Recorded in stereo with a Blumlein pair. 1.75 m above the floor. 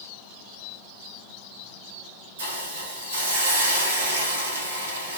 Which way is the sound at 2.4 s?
70° right.